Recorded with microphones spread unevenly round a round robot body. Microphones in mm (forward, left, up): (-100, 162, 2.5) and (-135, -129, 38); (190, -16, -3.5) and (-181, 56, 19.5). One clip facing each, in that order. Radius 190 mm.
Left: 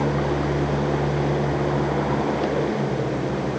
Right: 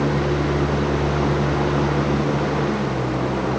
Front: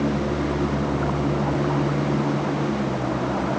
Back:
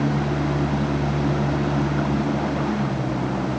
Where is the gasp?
I don't hear a gasp.